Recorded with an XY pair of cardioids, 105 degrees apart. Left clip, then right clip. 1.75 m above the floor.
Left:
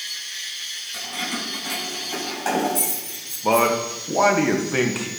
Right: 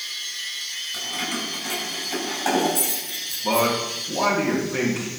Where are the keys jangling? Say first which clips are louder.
Even; 5° right, 5 m; by 3.7 s 10° left, 7 m.